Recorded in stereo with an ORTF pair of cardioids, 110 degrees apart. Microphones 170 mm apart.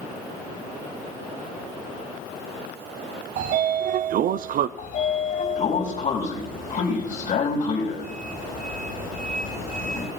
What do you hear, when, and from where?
3.4 s a sliding door: 60° right, 0.7 m
4.8 s a sliding door: 50° left, 4.5 m